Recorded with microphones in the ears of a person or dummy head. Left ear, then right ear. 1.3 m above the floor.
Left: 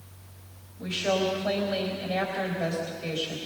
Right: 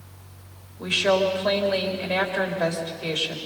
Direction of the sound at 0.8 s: 45° right (ahead or behind).